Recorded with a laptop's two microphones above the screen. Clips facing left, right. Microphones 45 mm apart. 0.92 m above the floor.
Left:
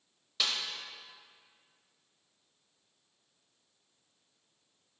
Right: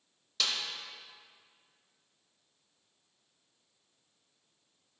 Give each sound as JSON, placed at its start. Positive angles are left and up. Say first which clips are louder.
{"t": 0.4, "sound": "a snare drum", "louder": "even", "side_deg": 15, "distance_m": 0.7}